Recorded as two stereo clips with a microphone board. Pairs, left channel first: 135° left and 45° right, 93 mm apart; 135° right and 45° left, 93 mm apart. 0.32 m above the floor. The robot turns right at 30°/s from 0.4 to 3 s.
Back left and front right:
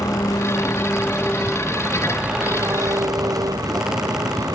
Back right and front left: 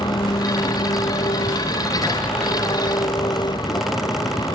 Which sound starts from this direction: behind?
An engine running, at 0.0 s.